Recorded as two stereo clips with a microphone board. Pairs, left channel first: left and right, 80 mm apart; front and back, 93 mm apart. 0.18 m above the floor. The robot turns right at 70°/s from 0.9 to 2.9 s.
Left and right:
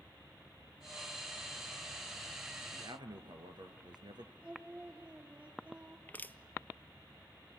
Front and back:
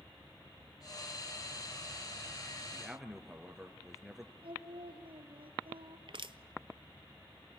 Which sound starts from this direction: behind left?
Crushing, at 6.1 s.